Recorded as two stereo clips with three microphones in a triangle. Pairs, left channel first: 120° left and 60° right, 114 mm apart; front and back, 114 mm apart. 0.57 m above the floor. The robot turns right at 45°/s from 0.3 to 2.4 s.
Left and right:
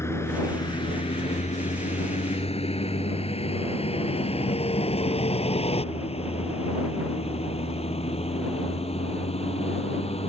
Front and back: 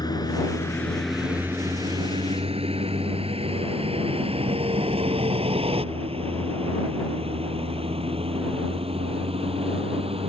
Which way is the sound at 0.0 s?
55° left.